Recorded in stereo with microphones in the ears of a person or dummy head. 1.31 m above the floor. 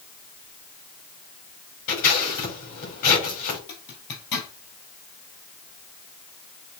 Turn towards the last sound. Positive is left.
turn(degrees=60)  # may be behind; listen again after turning